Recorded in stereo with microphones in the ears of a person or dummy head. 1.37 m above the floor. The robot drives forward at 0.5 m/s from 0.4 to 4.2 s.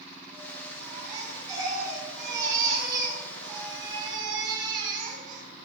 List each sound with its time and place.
0.8 s a baby crying: 15° right (ahead or behind), 5.5 m; by 5.4 s 25° right (ahead or behind), 4 m